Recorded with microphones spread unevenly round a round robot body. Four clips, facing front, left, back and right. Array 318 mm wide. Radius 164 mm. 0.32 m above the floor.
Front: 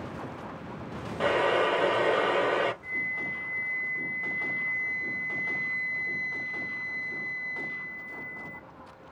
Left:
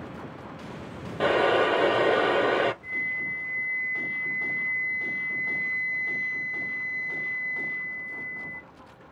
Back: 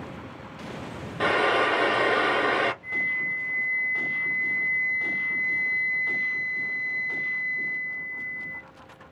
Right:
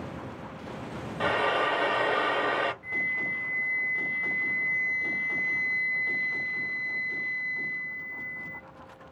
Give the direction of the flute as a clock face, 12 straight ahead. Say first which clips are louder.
Right 1 dB, back 4 dB; 2 o'clock.